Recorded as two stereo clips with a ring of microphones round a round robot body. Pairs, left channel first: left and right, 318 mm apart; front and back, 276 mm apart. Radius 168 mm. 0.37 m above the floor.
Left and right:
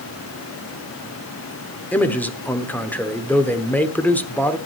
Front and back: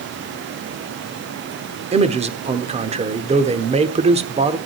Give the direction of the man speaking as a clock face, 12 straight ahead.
6 o'clock.